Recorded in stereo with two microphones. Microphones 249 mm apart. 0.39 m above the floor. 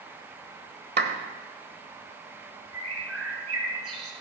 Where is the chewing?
No chewing in this recording.